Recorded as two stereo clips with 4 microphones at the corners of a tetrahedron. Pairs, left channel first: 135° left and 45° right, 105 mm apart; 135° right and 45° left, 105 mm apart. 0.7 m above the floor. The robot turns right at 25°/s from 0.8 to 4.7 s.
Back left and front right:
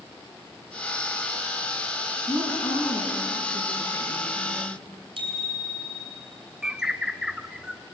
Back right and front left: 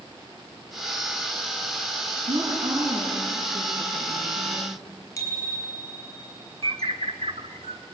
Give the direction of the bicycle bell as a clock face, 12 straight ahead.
3 o'clock.